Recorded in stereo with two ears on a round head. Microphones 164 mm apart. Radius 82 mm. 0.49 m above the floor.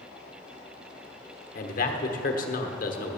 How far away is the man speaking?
About 1.1 m.